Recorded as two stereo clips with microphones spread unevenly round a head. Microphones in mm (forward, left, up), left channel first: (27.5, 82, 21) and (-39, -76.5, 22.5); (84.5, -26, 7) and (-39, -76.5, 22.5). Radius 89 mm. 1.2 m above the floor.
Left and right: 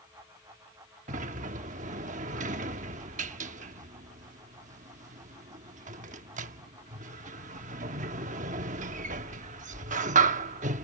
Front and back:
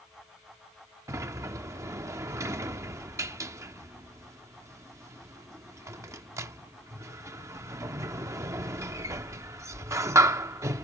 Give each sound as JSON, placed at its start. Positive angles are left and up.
{"t": 1.1, "sound": "a sliding door", "azimuth_deg": -115}